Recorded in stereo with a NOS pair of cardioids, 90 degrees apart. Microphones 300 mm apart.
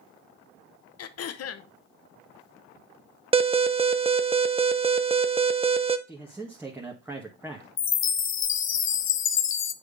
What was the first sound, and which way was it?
Throat clearing, 55° left.